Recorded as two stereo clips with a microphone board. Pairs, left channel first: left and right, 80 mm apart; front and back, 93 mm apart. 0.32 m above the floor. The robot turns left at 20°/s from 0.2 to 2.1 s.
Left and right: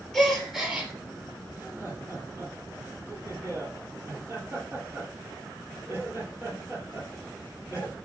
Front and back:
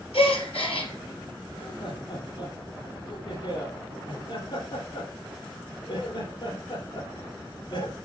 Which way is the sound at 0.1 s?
5° left.